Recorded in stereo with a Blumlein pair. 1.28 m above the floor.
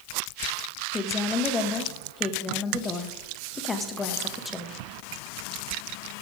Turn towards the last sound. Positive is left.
turn(degrees=15)